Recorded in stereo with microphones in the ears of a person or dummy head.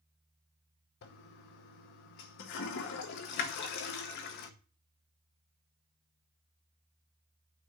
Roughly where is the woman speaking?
No woman speaking in this recording.